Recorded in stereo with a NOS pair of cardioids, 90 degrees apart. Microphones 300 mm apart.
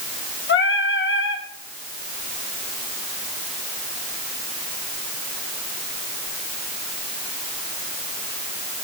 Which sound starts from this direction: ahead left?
Singing, at 0.5 s.